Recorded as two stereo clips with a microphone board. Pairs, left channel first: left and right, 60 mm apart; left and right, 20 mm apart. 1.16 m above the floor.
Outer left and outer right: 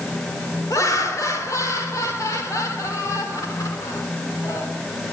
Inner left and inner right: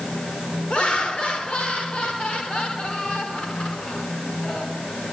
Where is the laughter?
65° left (ahead or behind), 3 m.